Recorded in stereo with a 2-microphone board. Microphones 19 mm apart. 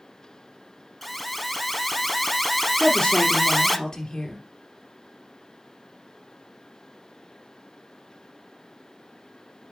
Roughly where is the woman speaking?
Left.